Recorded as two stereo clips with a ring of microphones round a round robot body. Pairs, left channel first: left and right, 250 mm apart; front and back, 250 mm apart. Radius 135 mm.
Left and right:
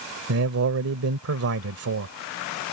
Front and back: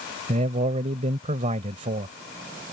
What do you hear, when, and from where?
0.3 s a man speaking: 115° right